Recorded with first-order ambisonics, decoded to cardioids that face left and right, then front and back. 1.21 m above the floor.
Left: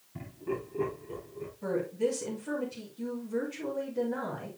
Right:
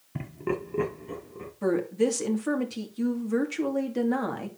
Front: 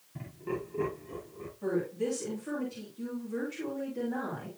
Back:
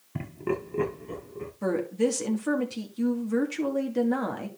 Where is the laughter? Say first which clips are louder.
Right 5 dB, back 6 dB; 140° right, 0.9 m; by 1.5 s 120° right, 2.5 m.